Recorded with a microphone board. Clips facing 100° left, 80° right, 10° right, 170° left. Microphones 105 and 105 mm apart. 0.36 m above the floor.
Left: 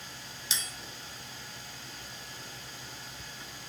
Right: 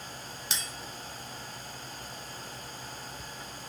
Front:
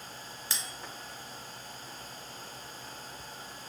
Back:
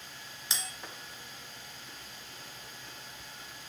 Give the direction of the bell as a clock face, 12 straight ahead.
4 o'clock.